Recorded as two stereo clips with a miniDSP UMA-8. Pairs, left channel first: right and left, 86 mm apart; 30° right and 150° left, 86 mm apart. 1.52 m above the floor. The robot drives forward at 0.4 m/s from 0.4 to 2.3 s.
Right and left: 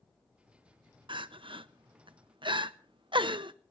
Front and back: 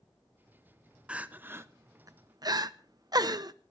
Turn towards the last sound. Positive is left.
turn(degrees=110)